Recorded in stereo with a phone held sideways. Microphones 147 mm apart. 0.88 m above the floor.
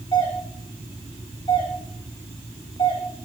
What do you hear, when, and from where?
0.1 s a doorbell: 35° left (ahead or behind), 3 m